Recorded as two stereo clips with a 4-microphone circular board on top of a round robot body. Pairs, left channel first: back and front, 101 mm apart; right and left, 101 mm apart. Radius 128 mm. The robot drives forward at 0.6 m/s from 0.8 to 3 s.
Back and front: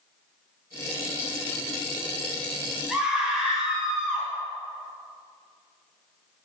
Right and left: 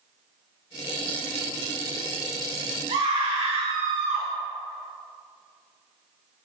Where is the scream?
80° left, 3 m; by 4.3 s 85° left, 3 m.